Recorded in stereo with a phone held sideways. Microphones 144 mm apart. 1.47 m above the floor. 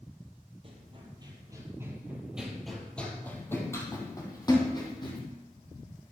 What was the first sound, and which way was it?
Running footsteps, 40° right (ahead or behind).